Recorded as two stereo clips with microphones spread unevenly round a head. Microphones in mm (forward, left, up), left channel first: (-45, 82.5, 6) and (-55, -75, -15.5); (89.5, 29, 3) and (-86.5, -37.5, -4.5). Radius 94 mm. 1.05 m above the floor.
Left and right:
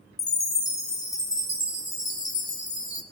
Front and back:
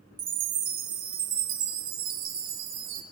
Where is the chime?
155° left, 2 m.